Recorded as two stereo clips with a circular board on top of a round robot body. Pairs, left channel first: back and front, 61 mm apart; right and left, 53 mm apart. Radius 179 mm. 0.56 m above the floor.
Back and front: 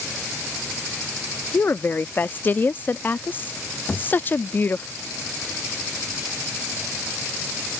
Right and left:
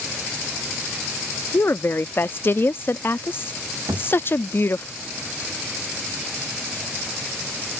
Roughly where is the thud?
Left.